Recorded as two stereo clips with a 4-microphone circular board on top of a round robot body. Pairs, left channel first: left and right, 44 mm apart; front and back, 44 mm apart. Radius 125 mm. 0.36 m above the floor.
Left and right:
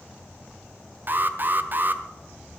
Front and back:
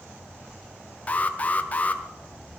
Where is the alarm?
55° right, 1.3 m.